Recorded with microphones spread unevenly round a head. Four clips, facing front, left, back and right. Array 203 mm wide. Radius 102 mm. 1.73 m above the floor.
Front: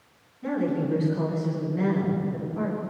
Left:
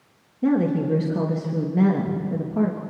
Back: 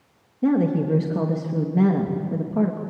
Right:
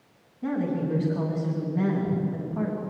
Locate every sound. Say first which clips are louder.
0.4 s a woman speaking: left 7 dB, back 6 dB; 140° left, 3 m